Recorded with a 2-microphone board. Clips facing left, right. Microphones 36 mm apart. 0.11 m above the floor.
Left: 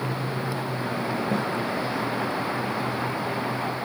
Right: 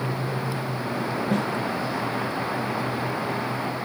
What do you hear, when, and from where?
1.3 s a snare drum: 70° right (ahead or behind), 4 m